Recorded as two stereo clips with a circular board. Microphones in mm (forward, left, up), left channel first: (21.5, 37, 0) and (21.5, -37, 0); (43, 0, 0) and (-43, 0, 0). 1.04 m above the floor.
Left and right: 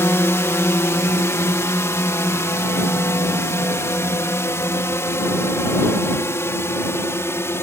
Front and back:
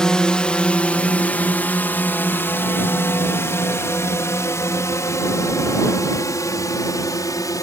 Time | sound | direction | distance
0.0 | a drone | 75° left | ?